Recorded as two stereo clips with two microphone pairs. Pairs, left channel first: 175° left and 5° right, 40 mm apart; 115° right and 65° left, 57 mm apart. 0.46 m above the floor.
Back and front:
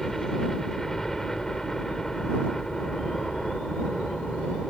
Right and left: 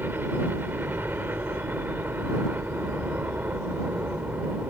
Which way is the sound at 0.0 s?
95° left.